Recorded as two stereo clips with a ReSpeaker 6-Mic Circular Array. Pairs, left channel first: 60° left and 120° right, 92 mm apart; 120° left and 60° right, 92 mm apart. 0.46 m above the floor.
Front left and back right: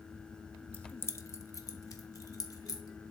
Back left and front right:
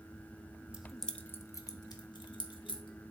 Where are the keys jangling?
5° left, 0.8 m; by 3.1 s 110° left, 2.0 m.